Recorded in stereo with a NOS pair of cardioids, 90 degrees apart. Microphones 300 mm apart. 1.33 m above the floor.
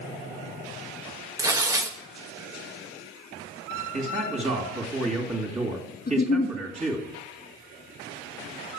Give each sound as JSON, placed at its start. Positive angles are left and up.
{"t": 1.4, "sound": "tearing paper", "azimuth_deg": -10, "distance_m": 1.2}
{"t": 3.9, "sound": "a man speaking", "azimuth_deg": -25, "distance_m": 2.5}
{"t": 6.1, "sound": "a giggle", "azimuth_deg": 30, "distance_m": 1.4}